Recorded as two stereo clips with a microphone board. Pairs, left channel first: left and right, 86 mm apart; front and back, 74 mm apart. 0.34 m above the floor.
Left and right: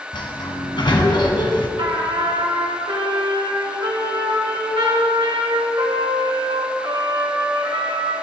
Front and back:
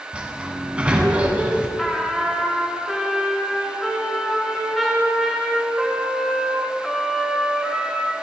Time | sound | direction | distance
0.1 | a sliding door | 105° left | 1.7 m
1.8 | a trumpet | 90° right | 3 m